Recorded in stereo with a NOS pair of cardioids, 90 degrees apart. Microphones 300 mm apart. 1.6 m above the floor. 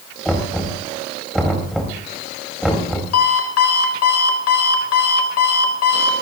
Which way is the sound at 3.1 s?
65° left.